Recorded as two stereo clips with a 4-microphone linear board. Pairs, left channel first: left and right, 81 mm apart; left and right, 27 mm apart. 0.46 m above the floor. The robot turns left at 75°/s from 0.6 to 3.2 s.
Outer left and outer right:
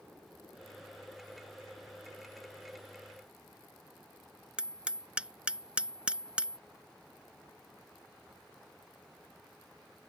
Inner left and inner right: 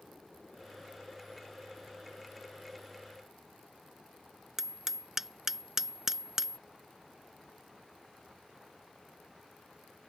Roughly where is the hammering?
Centre.